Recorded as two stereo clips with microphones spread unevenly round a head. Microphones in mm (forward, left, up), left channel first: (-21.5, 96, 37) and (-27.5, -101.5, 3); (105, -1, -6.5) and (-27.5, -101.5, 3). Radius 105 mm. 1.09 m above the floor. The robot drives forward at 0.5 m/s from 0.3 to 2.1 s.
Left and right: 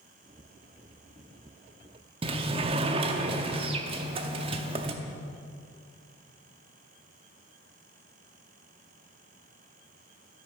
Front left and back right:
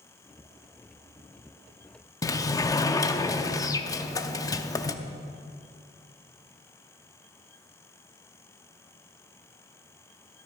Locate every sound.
2.2 s a sliding door: 30° right, 0.7 m